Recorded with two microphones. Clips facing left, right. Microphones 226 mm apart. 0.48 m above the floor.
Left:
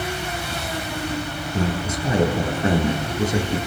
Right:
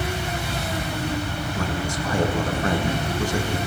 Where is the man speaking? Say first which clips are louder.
Left 5 dB; 20° left (ahead or behind), 6 m.